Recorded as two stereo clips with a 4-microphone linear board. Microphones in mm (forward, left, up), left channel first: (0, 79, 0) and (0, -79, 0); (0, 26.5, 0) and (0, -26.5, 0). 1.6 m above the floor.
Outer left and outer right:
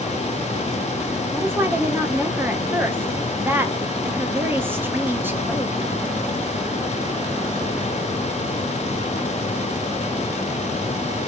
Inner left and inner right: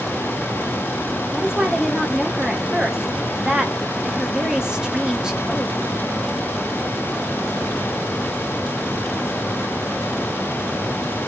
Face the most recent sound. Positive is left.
turn(degrees=-15)  # may be behind; listen again after turning